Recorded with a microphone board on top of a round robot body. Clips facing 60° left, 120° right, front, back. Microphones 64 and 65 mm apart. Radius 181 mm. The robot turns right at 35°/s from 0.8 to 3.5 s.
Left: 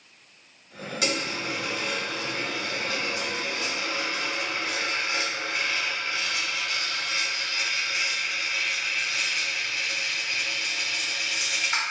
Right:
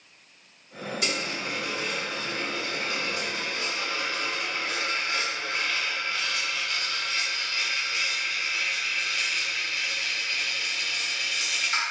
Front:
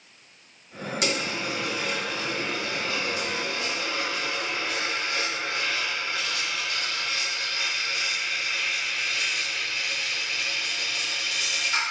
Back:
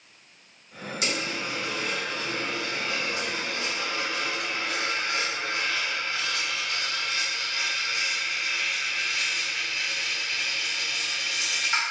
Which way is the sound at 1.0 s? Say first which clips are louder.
Left 3 dB, front 2 dB; 50° left.